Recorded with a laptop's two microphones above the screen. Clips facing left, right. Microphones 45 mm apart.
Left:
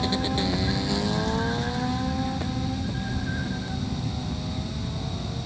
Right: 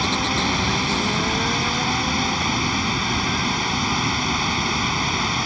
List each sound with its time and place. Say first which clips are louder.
0.0 s running water: right 4 dB; 75° right (ahead or behind)